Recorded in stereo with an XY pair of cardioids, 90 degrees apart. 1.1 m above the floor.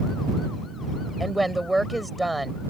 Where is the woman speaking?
10° right.